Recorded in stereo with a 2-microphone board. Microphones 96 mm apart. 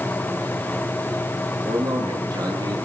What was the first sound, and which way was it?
A man speaking, 45° right (ahead or behind).